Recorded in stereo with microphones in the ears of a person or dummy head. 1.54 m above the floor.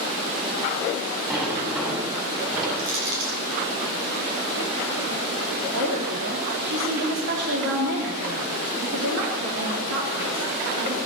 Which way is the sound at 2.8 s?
80° right.